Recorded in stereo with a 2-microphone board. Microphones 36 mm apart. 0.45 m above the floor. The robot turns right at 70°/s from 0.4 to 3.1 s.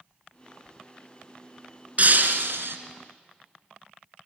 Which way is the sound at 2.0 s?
140° right.